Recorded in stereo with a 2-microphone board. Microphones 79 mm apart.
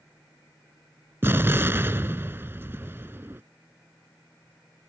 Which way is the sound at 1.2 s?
30° right (ahead or behind).